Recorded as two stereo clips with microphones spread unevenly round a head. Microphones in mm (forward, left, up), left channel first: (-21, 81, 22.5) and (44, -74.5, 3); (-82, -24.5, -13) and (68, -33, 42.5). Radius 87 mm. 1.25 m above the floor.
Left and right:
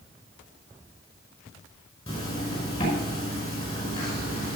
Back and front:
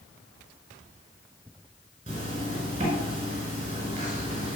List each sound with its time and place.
2.1 s a zipper: 55° left, 5.5 m